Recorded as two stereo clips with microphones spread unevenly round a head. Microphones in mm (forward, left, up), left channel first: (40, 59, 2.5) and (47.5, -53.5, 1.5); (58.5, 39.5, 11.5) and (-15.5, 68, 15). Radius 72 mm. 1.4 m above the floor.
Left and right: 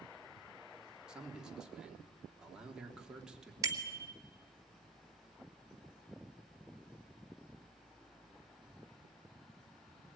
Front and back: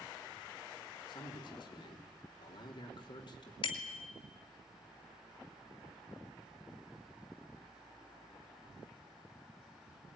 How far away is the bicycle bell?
About 2.5 m.